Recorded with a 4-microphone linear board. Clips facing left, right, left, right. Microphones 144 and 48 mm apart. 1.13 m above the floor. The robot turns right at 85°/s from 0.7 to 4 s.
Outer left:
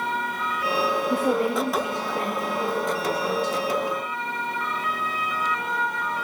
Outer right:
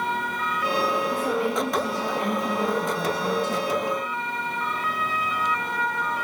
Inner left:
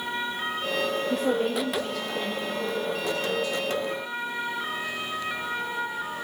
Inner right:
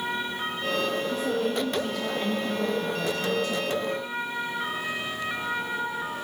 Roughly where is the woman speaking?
Left.